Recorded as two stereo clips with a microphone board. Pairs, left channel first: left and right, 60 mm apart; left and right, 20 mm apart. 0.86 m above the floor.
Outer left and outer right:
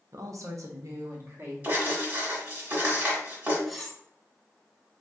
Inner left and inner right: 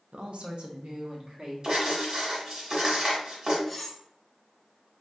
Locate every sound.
0.1 s a woman speaking: 65° right (ahead or behind), 0.6 m; by 1.5 s 50° right (ahead or behind), 1.2 m
1.6 s writing: 30° right (ahead or behind), 1.4 m
3.7 s cutlery clinking: centre (ahead or behind), 0.5 m